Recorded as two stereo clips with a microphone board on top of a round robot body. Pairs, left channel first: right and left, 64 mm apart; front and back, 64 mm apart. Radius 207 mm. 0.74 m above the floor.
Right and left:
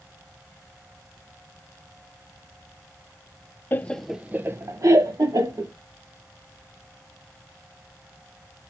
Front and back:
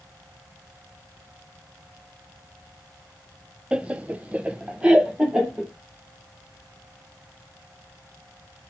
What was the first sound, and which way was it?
Laughter, 115° right.